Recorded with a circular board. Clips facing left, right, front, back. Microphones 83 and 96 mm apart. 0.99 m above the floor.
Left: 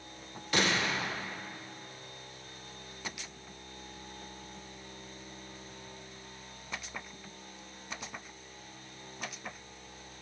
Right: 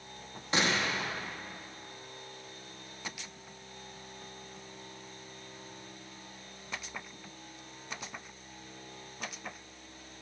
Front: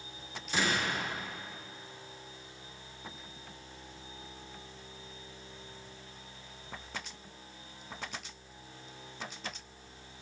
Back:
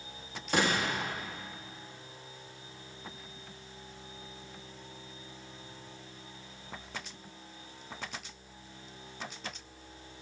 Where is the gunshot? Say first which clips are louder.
Even, back 3 dB; 150° right, 1.3 m.